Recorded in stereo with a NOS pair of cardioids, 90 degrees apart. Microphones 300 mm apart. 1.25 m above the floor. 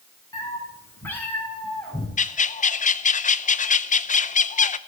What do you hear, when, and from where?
0.3 s a cat meowing: 10° left, 5.5 m; by 2.1 s straight ahead, 5.5 m
2.2 s a bird: 25° left, 0.7 m